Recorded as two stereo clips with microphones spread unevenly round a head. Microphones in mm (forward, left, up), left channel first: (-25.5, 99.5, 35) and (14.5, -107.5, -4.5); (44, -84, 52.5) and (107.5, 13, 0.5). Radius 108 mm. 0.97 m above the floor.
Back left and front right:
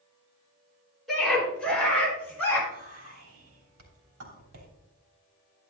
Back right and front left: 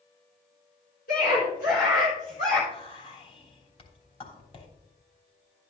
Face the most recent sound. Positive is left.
turn(degrees=-75)